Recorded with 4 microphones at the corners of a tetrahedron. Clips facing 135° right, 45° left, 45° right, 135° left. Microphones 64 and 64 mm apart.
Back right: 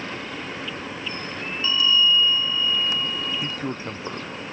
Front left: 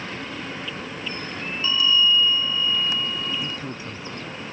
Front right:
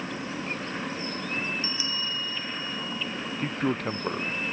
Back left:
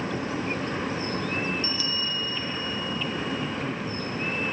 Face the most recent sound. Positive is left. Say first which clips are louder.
# back right 2 dB, front right 2 dB
turn(degrees=-75)